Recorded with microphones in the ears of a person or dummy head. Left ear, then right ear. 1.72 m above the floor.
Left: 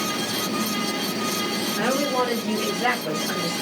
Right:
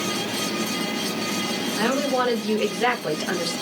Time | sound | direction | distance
1.8 | a woman speaking | 10° right (ahead or behind) | 1.1 m